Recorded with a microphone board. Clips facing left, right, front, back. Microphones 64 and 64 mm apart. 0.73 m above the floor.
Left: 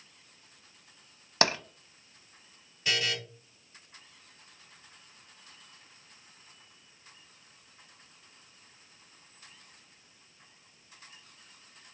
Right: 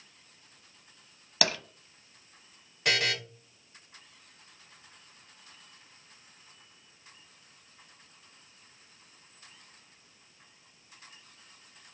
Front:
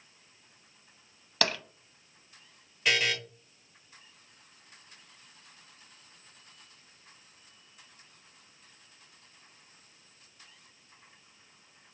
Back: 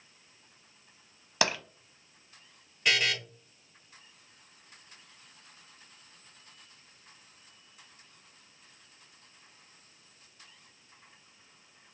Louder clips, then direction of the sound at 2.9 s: Right 3 dB, even; 90° right.